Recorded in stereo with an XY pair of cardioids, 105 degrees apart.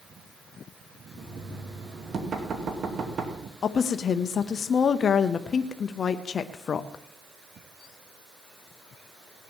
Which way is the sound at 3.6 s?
50° left.